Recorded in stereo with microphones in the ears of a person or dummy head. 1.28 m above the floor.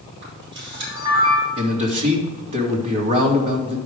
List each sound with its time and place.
0.2 s a camera shutter: 25° right (ahead or behind), 5 m
1.6 s a man speaking: 35° right (ahead or behind), 2 m